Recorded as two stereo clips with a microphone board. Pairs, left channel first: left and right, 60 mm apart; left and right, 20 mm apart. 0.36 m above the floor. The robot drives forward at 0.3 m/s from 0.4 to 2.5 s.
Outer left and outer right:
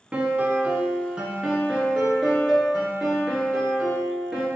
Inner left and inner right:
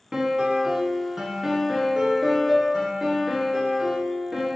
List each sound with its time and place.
0.1 s a piano: 20° right (ahead or behind), 0.6 m; by 4.5 s 10° right (ahead or behind), 1.2 m